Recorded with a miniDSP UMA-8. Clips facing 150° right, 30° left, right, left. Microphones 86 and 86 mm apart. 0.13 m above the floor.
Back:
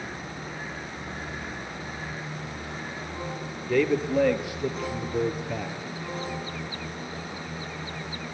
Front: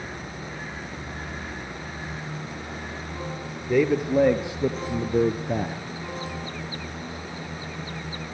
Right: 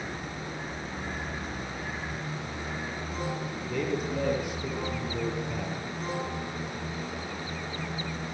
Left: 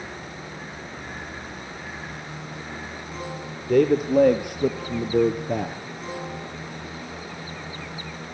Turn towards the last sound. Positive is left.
turn(degrees=65)